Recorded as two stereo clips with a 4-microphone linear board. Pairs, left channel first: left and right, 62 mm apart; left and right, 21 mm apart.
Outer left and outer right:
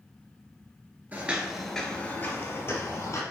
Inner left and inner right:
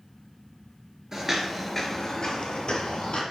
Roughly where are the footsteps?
Right.